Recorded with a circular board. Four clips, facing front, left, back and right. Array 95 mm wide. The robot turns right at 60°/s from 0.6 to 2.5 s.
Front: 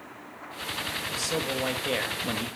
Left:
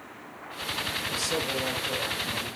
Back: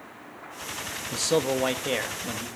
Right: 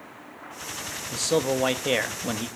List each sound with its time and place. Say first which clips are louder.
1.1 s a man speaking: right 8 dB, back 7 dB; 150° right, 1.3 m; by 2.5 s 65° right, 1.3 m